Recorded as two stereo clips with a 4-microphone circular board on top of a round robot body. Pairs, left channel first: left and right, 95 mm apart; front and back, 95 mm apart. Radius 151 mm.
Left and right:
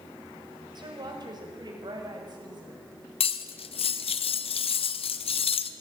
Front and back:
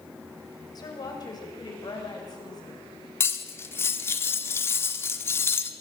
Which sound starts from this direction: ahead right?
A woman speaking, at 0.8 s.